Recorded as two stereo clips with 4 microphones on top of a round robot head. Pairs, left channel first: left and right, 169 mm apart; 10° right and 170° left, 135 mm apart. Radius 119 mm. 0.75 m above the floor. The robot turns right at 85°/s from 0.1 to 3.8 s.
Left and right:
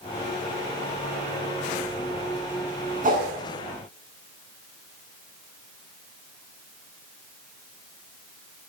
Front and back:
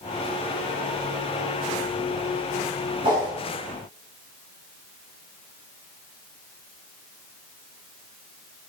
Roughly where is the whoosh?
Behind right.